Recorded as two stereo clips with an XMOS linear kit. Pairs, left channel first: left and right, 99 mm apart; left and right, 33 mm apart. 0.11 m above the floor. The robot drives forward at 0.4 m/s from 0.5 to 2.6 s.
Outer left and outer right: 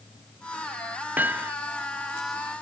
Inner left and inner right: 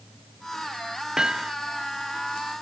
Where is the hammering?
20° right (ahead or behind).